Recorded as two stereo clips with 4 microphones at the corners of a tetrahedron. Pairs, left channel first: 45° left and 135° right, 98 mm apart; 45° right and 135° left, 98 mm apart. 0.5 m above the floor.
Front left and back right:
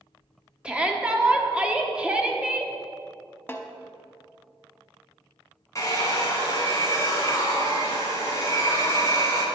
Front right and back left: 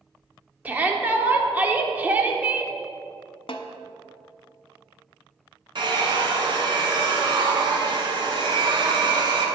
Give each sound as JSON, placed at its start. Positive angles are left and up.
{"t": 0.7, "sound": "a shout", "azimuth_deg": 165, "distance_m": 0.8}
{"t": 3.5, "sound": "a snare drum", "azimuth_deg": -25, "distance_m": 0.6}
{"t": 5.8, "sound": "a hair dryer", "azimuth_deg": 100, "distance_m": 1.7}